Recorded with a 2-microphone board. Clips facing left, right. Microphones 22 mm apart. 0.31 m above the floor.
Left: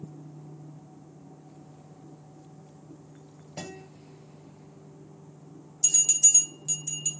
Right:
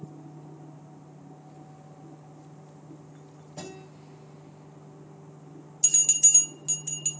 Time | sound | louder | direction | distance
3.6 | a guitar | left 1 dB | 85° left | 1.9 m
5.8 | a bell | even | 25° right (ahead or behind) | 1.5 m